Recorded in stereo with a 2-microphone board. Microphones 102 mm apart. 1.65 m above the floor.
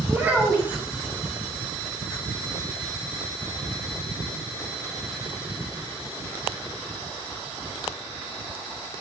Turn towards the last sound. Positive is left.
turn(degrees=-15)  # may be behind; listen again after turning